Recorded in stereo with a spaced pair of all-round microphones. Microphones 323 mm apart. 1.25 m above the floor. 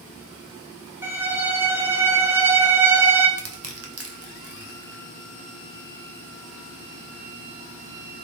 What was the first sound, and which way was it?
A violin, 10° right (ahead or behind).